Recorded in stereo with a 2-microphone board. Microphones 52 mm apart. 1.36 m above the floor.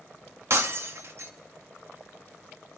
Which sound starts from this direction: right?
Breaking glass, at 0.5 s.